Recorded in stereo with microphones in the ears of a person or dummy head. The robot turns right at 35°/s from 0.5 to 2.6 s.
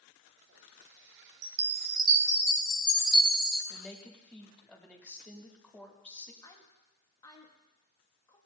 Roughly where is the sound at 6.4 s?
Centre.